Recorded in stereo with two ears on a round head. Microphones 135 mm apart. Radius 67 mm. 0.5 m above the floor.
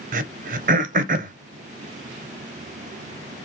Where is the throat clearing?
55° right (ahead or behind), 0.6 m.